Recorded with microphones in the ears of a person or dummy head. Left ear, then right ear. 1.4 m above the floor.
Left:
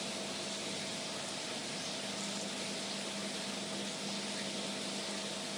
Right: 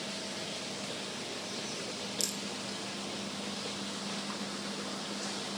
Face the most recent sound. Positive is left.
turn(degrees=-70)  # may be behind; listen again after turning